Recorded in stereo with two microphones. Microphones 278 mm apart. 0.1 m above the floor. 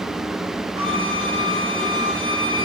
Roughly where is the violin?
Left.